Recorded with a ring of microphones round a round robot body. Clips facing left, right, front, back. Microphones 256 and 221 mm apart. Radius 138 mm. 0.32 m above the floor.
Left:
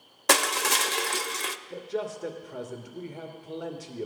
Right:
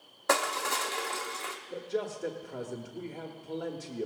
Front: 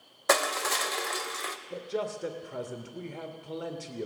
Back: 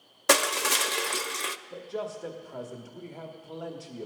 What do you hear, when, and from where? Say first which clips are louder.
0.3 s crushing: left 3 dB, back 2 dB; 130° left, 0.5 m
1.7 s a man speaking: even, front 3 dB; 10° left, 1.0 m